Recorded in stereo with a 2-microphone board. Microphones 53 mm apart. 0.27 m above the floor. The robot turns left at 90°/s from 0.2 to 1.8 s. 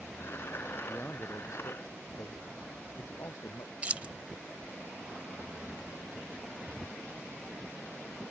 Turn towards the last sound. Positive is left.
turn(degrees=-25)  # may be behind; listen again after turning